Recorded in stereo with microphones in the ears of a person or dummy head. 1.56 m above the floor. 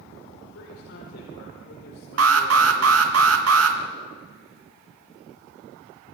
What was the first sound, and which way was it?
A man speaking, 80° left.